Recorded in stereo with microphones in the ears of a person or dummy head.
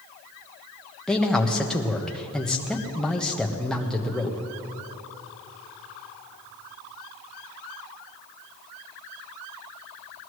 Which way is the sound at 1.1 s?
Centre (ahead or behind).